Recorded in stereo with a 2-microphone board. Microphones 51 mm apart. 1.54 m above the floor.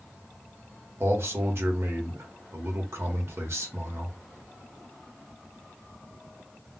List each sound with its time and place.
1.0 s a man speaking: 60° right (ahead or behind), 1.0 m